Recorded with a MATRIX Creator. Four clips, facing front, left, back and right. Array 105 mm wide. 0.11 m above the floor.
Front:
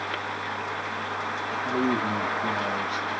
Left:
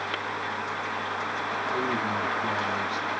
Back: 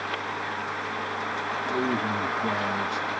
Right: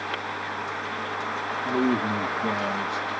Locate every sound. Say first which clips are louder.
1.6 s a man speaking: right 6 dB, front 2 dB; 85° right, 2.5 m; by 3.2 s 170° right, 1.8 m